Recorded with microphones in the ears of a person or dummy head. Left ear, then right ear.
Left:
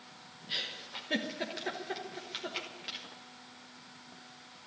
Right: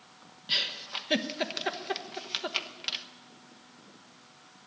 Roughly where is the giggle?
Right.